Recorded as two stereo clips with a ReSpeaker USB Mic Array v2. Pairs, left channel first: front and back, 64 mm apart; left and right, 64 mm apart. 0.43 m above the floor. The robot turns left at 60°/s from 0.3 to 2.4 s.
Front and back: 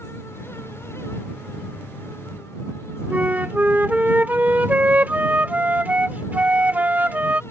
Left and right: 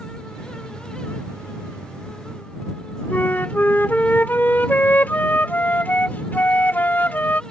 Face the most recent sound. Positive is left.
turn(degrees=130)